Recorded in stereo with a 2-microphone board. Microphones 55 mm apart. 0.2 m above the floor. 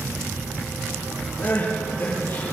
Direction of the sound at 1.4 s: 40° left (ahead or behind).